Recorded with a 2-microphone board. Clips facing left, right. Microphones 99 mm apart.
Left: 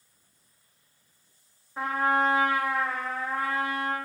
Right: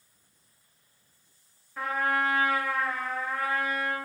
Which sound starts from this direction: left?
A trumpet, at 1.8 s.